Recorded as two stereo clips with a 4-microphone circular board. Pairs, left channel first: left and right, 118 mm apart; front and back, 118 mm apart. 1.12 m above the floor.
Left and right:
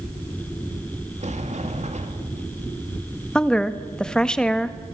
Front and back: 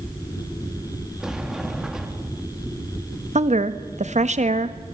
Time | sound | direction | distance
1.2 | a sliding door | 95° right | 2.5 m
3.4 | a woman speaking | 175° left | 1.5 m